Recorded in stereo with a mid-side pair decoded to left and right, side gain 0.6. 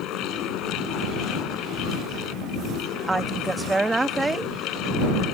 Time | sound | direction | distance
0.0 | a fan | 65° left | ?
3.1 | a woman speaking | 15° right | ?